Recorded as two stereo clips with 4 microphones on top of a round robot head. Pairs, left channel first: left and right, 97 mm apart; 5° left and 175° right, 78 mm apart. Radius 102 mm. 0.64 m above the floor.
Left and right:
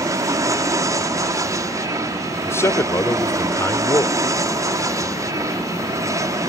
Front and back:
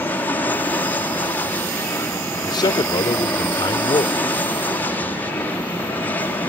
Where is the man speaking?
25° left.